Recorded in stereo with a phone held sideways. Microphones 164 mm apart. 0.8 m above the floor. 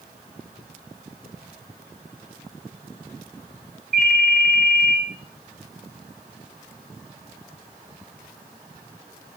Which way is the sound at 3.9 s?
75° right (ahead or behind).